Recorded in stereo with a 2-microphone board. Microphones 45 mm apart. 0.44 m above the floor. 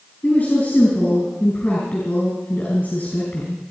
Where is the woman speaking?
45° left (ahead or behind), 5.5 m.